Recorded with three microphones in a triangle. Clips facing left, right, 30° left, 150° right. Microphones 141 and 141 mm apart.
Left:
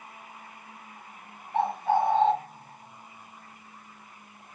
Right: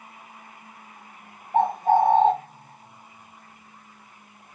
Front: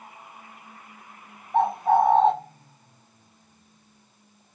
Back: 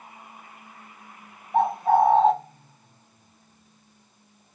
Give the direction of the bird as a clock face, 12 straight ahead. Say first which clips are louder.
Right 5 dB, even; 2 o'clock.